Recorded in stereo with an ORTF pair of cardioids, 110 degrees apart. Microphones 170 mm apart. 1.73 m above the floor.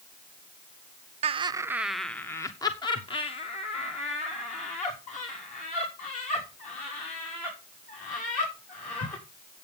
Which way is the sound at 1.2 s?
40° right.